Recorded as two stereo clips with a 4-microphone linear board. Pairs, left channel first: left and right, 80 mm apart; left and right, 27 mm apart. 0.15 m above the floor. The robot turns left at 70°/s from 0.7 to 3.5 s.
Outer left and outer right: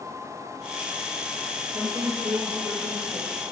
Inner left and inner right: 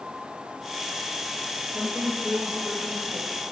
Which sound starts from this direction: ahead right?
A woman speaking, at 1.7 s.